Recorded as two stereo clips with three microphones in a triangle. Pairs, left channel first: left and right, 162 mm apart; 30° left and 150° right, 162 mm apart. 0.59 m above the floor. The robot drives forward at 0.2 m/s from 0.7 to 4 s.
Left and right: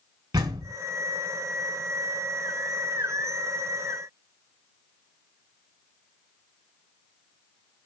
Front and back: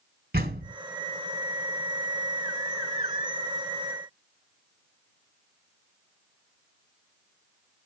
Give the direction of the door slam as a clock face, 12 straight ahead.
5 o'clock.